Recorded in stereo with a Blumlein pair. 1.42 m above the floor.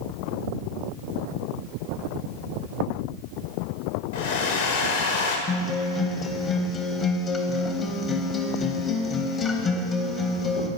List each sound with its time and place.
4.1 s a hair dryer: 55° left, 0.8 m
5.5 s a guitar: 20° left, 0.6 m